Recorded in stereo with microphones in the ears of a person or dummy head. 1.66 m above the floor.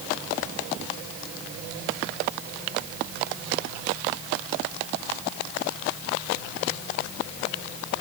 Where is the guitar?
No guitar in this recording.